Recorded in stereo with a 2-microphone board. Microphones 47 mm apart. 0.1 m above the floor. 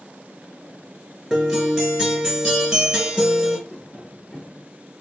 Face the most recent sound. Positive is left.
turn(degrees=45)  # may be behind; listen again after turning